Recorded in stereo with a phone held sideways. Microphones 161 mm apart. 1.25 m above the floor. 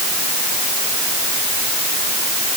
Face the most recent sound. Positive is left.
No sound to turn to.